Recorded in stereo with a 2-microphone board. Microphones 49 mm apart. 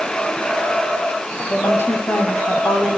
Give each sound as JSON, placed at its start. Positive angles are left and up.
{"t": 1.5, "sound": "a woman speaking", "side_deg": 55, "distance_m": 8.5}